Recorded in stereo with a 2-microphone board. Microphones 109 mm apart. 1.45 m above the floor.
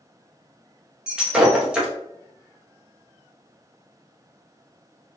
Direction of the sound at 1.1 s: 5° right (ahead or behind).